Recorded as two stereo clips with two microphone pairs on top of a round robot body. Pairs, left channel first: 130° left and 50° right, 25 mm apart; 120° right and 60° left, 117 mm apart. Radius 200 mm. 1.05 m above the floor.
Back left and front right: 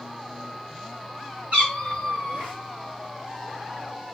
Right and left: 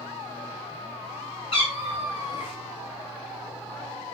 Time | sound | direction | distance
1.5 | a cat meowing | 80° right | 1.3 m